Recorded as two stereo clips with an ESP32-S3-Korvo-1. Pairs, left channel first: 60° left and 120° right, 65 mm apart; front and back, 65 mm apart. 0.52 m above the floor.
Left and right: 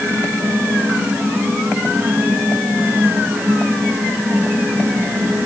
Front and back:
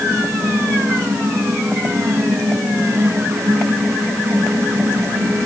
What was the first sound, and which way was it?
Only background noise.